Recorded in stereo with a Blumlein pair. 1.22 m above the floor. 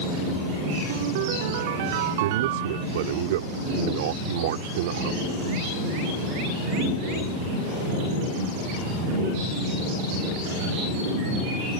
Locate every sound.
0.9 s a ringtone: 50° right
2.2 s a man speaking: 55° right